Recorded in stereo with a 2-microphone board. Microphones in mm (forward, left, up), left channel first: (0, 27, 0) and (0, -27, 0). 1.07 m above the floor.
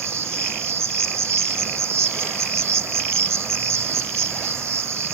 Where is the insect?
60° right (ahead or behind).